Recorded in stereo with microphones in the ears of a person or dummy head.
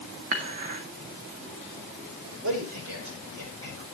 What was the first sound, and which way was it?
Dishes clattering, 40° right (ahead or behind).